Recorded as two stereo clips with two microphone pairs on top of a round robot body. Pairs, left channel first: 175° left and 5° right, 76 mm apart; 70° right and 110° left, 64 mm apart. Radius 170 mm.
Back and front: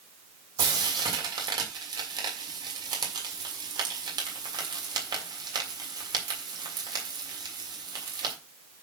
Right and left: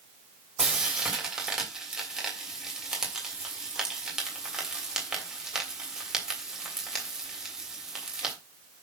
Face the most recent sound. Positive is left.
turn(degrees=25)